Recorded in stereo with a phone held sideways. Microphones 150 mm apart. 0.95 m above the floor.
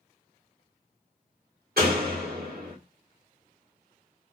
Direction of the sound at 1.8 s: 75° right (ahead or behind).